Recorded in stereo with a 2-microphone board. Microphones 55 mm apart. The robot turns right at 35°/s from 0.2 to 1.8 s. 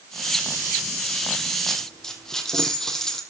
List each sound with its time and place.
1.7 s a dropped coin: 5° left (ahead or behind), 3 m; by 3.2 s 10° left (ahead or behind), 3 m